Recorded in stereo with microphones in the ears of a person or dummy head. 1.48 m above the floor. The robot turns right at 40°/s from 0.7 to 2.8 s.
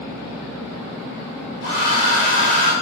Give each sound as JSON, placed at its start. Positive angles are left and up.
{"t": 1.6, "sound": "a hair dryer", "azimuth_deg": 75, "distance_m": 1.3}